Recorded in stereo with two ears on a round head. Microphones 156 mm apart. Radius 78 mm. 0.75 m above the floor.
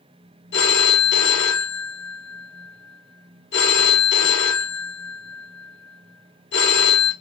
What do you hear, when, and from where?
0.5 s a phone ringing: 70° left (ahead or behind), 1.3 m